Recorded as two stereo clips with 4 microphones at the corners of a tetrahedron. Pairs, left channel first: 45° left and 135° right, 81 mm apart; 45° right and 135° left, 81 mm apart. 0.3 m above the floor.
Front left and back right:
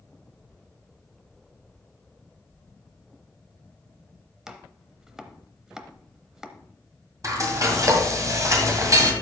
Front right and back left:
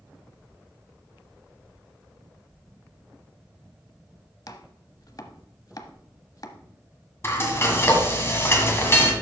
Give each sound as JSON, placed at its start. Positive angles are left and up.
{"t": 4.5, "sound": "chopping", "azimuth_deg": -55, "distance_m": 0.8}
{"t": 7.2, "sound": "frying", "azimuth_deg": -95, "distance_m": 1.8}